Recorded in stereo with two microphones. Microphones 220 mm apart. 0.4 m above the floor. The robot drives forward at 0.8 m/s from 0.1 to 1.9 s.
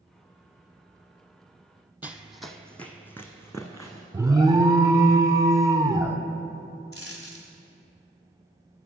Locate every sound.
2.0 s running footsteps: 10° right (ahead or behind), 0.6 m; by 4.0 s 15° left (ahead or behind), 1.6 m
4.1 s an alarm: 15° right (ahead or behind), 0.6 m
6.9 s a dropped coin: 75° left (ahead or behind), 1.5 m